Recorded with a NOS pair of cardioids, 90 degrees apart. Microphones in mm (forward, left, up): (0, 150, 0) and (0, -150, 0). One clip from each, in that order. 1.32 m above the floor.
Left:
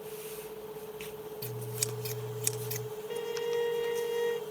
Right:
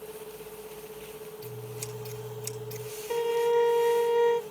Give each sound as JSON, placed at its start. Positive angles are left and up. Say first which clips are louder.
{"t": 1.4, "sound": "scissors", "louder": "left 4 dB", "azimuth_deg": 60, "distance_m": 1.4}
{"t": 3.1, "sound": "a violin", "louder": "right 8 dB", "azimuth_deg": -20, "distance_m": 0.7}